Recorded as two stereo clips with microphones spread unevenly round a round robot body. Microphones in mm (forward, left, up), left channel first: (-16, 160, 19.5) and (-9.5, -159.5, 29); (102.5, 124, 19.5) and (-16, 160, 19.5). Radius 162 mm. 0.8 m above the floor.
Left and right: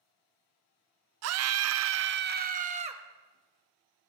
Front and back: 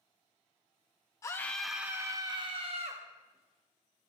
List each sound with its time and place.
1.2 s a scream: 75° right, 0.6 m; by 3.0 s 160° right, 1.0 m